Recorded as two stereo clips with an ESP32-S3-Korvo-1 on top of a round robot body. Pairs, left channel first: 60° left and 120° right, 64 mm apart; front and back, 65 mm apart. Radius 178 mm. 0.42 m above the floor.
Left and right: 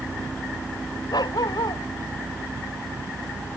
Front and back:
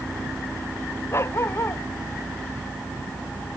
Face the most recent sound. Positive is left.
turn(degrees=50)